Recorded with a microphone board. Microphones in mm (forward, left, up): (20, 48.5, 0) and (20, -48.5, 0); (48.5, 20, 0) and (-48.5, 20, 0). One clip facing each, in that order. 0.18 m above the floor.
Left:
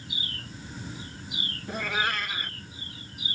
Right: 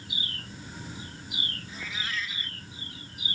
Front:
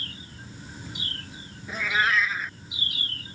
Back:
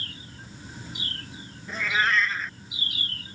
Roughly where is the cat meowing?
Left.